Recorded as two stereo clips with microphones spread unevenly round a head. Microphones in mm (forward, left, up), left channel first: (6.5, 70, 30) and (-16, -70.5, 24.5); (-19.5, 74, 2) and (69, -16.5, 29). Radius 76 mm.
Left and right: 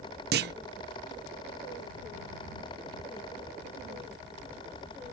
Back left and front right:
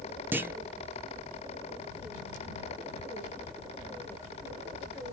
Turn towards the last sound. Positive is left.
turn(degrees=-120)